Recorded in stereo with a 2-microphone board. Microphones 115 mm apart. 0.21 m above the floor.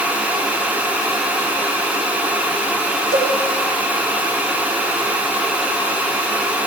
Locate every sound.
3.1 s a cowbell: 35° left (ahead or behind), 2 m